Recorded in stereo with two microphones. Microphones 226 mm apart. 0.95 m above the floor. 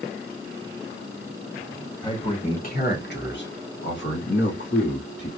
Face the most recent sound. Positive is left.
turn(degrees=50)  # may be behind; listen again after turning